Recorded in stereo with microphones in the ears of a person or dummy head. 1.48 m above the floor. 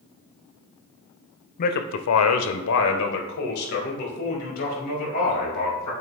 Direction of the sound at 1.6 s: 45° left (ahead or behind).